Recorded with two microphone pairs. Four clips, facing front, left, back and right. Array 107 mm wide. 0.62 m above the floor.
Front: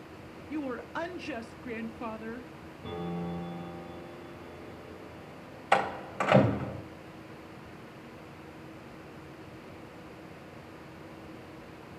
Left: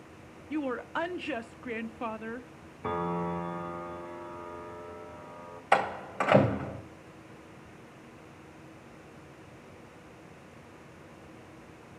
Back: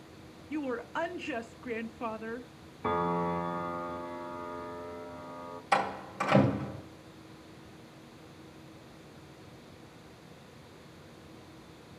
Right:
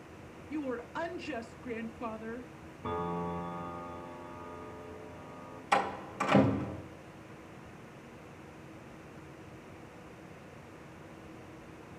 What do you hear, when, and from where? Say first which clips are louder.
0.5 s a woman speaking: left 4 dB, back 1 dB; 95° left, 0.8 m
2.8 s a piano: left 4 dB, back 7 dB; 150° left, 0.8 m
5.7 s a door slam: left 4 dB, front 2 dB; 65° left, 2.5 m